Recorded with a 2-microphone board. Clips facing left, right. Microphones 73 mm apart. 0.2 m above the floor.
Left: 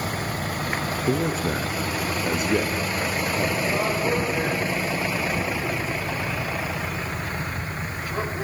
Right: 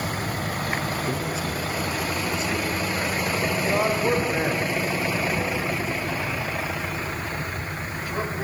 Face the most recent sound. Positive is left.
turn(degrees=-20)  # may be behind; listen again after turning